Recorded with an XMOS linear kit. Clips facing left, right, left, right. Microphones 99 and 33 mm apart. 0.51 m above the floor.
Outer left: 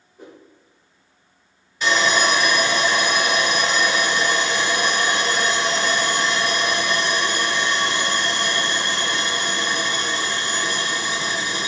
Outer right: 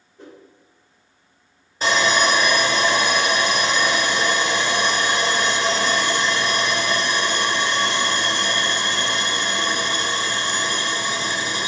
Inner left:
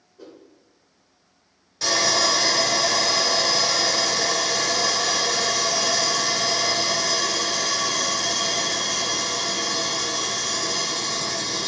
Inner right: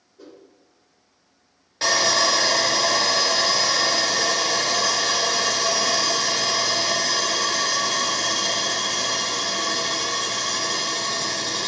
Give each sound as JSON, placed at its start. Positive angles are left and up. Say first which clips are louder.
{"t": 0.2, "sound": "a whoosh", "louder": "even, inner left 1 dB", "side_deg": 10, "distance_m": 1.4}
{"t": 1.8, "sound": "sawing", "louder": "outer right 1 dB, inner right 2 dB", "side_deg": -35, "distance_m": 1.1}